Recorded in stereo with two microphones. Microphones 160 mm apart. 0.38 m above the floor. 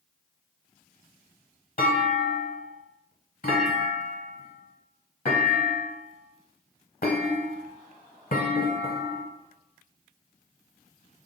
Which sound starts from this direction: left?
A clunk, at 1.8 s.